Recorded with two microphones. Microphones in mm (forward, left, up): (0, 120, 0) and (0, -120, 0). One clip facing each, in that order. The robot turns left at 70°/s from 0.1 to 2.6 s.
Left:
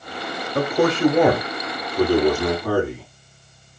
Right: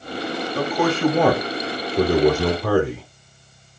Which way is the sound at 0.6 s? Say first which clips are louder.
Left 3 dB; 55° left.